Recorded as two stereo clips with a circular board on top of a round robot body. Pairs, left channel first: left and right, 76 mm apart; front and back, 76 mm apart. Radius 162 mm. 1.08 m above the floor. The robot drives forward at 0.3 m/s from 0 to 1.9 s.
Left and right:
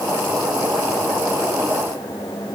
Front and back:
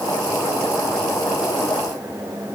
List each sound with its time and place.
Only background noise.